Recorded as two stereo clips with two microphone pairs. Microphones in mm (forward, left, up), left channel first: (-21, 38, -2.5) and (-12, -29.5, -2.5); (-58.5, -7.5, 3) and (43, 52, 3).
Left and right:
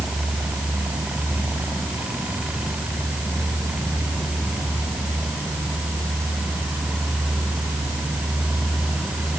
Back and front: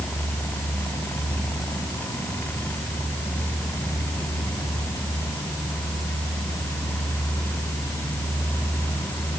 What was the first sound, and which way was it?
Only background noise.